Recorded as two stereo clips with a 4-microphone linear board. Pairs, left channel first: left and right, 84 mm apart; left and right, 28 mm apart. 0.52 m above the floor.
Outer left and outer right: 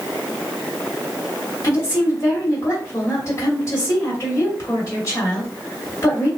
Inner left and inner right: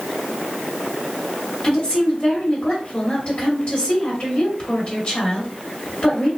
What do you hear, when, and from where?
1.6 s a woman speaking: 40° left (ahead or behind), 1.5 m